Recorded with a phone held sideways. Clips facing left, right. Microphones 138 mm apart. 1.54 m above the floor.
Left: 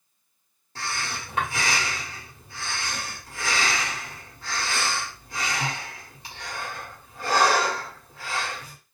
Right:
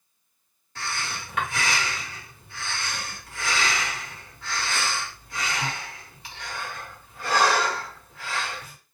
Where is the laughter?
I don't hear laughter.